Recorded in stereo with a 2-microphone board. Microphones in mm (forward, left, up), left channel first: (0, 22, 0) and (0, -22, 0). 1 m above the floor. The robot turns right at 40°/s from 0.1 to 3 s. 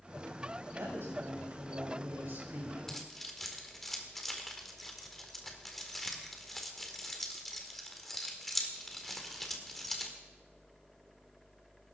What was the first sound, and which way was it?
A woman speaking, 120° right.